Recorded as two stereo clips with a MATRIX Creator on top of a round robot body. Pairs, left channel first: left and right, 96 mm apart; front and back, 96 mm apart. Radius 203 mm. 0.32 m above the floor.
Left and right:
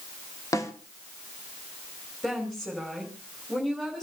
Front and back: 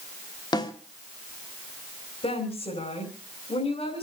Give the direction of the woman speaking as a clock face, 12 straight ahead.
12 o'clock.